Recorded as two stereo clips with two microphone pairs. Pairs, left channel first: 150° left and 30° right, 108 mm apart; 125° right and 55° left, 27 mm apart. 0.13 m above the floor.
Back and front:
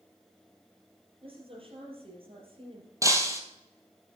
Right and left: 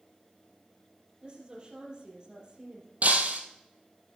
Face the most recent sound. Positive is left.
turn(degrees=35)